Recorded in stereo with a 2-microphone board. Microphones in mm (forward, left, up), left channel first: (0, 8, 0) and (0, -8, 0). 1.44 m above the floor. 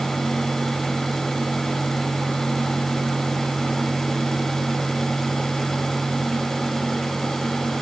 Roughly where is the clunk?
No clunk in this recording.